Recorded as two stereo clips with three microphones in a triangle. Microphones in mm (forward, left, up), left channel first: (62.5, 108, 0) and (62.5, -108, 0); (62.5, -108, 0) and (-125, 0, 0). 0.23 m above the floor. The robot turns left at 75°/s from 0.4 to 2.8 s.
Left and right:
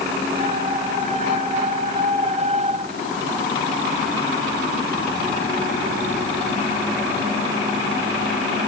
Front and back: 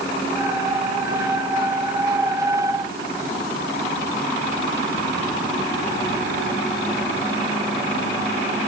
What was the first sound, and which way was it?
Only background noise.